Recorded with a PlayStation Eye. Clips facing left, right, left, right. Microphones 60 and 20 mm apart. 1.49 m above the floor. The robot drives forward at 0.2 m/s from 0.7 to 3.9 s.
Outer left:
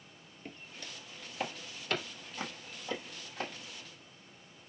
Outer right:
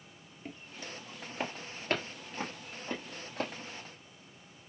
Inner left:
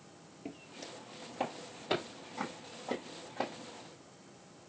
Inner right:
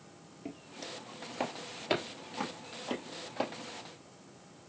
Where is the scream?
No scream in this recording.